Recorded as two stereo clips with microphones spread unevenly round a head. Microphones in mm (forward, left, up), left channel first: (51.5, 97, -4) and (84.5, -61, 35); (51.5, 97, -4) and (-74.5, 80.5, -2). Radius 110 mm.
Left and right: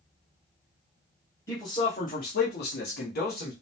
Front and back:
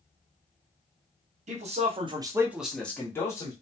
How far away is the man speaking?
About 0.8 m.